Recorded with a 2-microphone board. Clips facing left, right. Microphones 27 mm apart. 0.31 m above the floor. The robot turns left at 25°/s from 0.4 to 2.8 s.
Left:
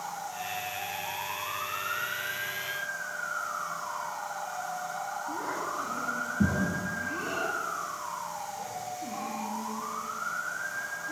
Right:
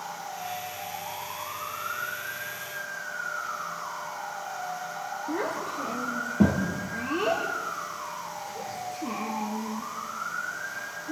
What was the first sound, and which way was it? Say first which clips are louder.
A child speaking: right 6 dB; 80° right.